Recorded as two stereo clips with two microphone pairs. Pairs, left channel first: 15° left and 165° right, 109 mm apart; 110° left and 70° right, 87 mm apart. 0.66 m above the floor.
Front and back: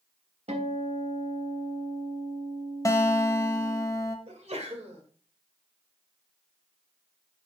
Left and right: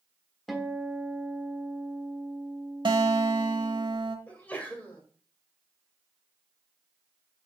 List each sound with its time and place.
0.5 s a guitar: 155° right, 1.4 m
2.9 s a guitar: 45° right, 1.0 m
4.3 s a sneeze: 175° right, 2 m